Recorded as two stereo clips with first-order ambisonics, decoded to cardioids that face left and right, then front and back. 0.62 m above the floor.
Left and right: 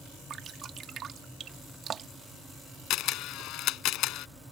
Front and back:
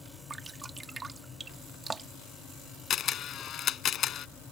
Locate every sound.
0.3 s dripping: 120° right
2.9 s a camera shutter: 55° left